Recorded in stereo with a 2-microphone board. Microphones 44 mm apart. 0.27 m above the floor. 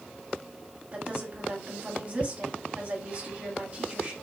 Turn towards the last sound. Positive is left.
turn(degrees=-35)  # may be behind; listen again after turning